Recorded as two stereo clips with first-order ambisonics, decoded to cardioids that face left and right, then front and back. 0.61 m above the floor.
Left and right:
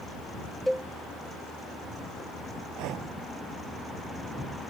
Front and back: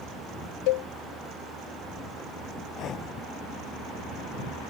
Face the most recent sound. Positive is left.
turn(degrees=-55)